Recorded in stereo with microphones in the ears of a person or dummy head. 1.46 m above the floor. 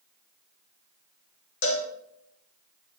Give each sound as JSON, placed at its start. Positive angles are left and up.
{"t": 1.6, "sound": "a cowbell", "side_deg": 60, "distance_m": 1.2}